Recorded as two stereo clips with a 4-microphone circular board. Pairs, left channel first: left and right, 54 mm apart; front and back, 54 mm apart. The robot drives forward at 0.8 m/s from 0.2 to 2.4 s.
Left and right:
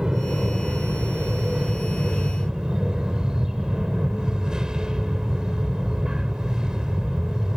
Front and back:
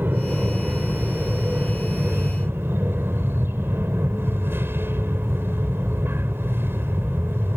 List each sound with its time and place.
0.0 s an aircraft: 160° right; by 7.6 s 165° right